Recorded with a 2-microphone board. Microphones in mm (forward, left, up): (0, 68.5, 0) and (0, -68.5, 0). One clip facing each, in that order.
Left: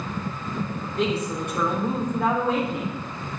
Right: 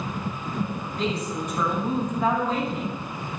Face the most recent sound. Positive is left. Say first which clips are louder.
# left 3 dB
turn(degrees=70)  # may be behind; listen again after turning